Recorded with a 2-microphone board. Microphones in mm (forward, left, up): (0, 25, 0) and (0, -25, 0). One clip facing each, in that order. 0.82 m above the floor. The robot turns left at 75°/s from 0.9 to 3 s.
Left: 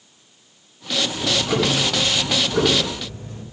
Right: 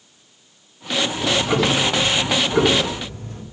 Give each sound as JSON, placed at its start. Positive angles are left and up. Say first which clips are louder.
{"t": 1.1, "sound": "ticking", "louder": "right 2 dB", "azimuth_deg": 20, "distance_m": 2.5}